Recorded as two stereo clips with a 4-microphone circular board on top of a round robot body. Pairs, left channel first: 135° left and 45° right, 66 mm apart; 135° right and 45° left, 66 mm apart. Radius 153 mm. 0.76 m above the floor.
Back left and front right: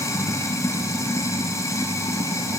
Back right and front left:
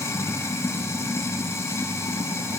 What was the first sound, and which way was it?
Running water, straight behind.